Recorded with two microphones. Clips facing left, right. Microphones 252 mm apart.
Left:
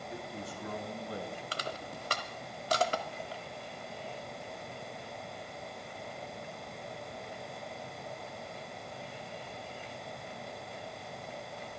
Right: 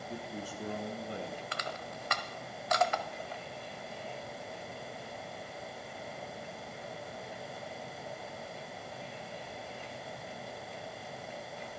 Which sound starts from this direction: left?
Crushing, at 1.5 s.